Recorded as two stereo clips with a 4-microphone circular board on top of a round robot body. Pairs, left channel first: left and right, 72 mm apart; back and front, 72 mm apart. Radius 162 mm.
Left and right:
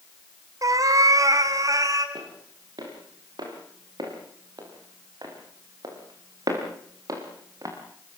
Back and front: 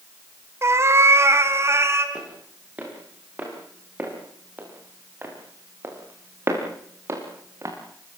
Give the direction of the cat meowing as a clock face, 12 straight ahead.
2 o'clock.